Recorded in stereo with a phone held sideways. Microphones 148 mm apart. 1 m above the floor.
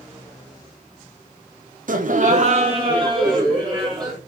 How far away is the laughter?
About 0.5 m.